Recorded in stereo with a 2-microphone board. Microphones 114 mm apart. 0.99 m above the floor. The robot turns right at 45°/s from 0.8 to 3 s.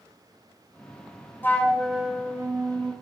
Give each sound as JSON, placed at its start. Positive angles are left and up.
{"t": 1.4, "sound": "a flute", "azimuth_deg": 160, "distance_m": 0.5}